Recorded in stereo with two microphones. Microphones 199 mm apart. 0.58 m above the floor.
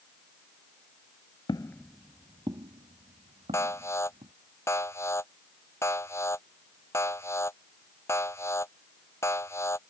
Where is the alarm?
15° left (ahead or behind).